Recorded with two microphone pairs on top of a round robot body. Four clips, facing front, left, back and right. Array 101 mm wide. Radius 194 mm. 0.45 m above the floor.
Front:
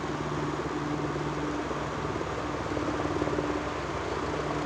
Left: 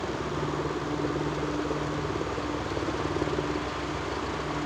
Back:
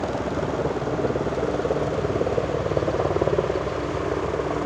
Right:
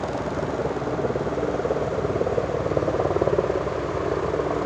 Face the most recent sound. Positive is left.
turn(degrees=-115)